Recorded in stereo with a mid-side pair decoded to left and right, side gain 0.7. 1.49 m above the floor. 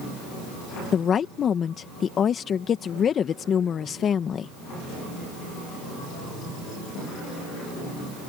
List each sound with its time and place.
0.9 s a woman speaking: 35° left